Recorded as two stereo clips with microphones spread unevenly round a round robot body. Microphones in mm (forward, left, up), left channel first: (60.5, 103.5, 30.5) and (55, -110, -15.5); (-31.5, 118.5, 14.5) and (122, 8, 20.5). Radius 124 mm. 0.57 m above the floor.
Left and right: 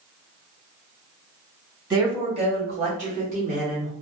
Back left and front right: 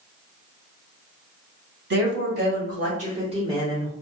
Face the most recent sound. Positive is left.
turn(degrees=-115)